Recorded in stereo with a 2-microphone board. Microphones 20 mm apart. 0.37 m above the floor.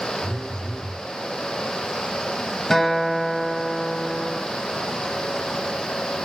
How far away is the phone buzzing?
About 1.9 m.